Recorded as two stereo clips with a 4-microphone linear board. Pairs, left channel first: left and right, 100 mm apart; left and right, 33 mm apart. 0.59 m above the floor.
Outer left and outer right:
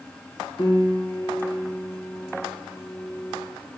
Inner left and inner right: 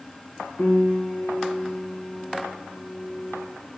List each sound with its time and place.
0.6 s a piano: 55° left (ahead or behind), 1.9 m